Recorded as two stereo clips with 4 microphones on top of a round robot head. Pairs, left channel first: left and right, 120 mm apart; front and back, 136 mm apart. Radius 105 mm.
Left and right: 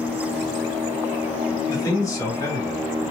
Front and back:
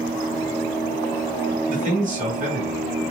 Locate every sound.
1.7 s a man speaking: 155° left, 1.7 m